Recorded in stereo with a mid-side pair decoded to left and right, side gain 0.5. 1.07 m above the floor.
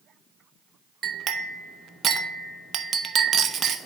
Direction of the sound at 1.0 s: 50° right.